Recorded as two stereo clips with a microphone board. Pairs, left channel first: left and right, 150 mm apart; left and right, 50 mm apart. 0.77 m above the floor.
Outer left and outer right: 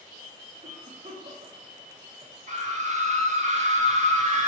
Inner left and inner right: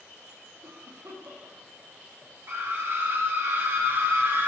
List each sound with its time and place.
0.6 s a cough: 65° right (ahead or behind), 1.3 m
2.5 s a scream: 50° right (ahead or behind), 1.2 m